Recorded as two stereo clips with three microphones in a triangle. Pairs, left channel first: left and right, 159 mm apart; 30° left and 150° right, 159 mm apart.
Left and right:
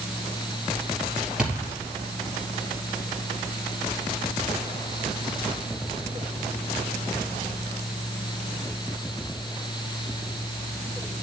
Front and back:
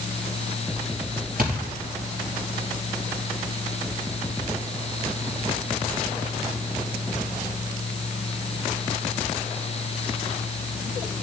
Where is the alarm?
I don't hear an alarm.